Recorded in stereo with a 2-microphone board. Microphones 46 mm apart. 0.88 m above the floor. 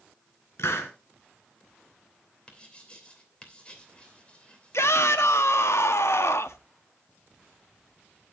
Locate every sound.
0.6 s a hiss: 70° left (ahead or behind), 2.5 m
2.5 s writing: 25° left (ahead or behind), 2.5 m
4.7 s a shout: 75° left (ahead or behind), 1.1 m